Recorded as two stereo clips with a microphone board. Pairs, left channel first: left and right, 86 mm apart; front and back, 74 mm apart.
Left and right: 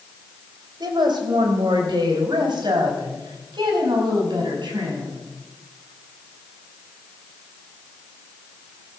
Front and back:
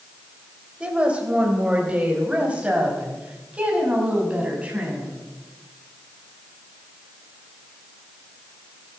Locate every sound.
0.8 s a woman speaking: 105° right, 3 m